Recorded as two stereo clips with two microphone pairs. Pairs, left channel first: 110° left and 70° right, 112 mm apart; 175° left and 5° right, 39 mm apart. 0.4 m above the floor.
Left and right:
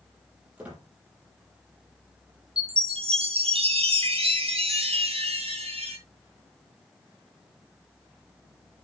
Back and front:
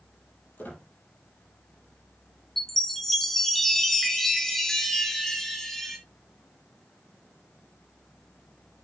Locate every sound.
0.6 s a squeak: 150° right, 5.5 m
2.6 s a chime: 105° right, 3 m